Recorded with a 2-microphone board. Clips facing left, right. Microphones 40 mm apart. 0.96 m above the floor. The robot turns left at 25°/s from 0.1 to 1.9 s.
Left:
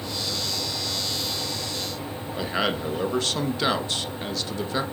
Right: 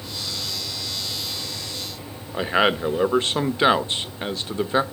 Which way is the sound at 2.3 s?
30° right (ahead or behind).